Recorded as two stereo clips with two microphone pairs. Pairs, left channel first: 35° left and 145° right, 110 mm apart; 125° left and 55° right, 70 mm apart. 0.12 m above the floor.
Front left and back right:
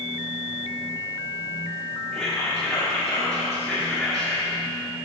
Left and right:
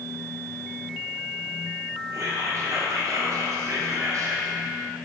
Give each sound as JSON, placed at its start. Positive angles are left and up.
{"t": 2.1, "sound": "whispering", "azimuth_deg": -50, "distance_m": 2.0}